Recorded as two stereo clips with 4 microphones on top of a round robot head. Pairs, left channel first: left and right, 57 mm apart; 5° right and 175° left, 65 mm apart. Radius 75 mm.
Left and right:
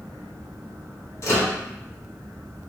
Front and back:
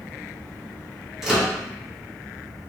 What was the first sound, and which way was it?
A microwave, 95° left.